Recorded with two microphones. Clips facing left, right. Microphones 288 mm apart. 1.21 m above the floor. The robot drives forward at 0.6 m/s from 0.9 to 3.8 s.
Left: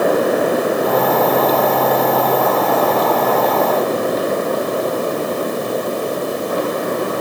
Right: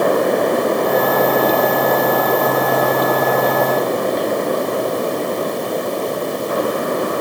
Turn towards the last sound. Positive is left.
No sound to turn to.